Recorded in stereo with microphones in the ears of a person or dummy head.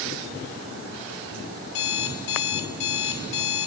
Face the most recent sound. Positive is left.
turn(degrees=65)  # may be behind; listen again after turning